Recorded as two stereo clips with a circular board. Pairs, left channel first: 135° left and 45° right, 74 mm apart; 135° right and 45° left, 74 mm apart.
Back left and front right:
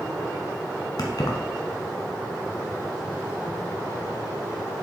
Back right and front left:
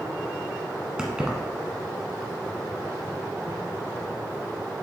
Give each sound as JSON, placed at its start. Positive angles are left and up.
{"t": 1.0, "sound": "keys jangling", "azimuth_deg": 120, "distance_m": 1.5}